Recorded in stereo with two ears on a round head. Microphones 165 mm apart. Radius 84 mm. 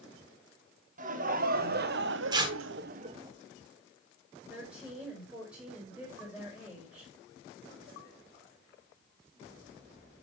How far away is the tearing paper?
About 1.1 m.